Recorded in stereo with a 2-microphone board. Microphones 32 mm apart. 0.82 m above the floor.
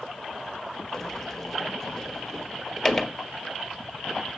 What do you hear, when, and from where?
0.9 s a sliding door: 5° left (ahead or behind), 1.5 m